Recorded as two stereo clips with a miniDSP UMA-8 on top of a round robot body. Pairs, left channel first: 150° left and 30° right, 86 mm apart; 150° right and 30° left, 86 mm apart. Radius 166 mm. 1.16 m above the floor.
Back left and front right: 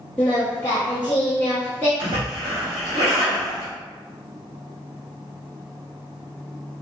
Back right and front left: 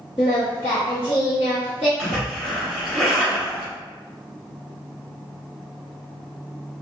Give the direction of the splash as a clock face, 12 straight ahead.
2 o'clock.